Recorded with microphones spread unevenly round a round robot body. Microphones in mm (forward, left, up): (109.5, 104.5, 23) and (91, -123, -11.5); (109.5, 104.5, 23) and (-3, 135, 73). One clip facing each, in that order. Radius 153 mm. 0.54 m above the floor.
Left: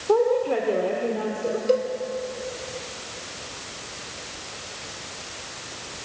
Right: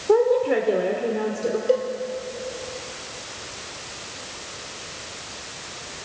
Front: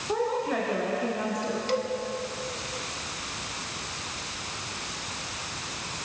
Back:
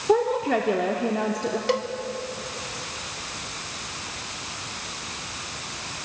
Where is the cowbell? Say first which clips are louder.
Even, back 3 dB; 155° left, 1.0 m.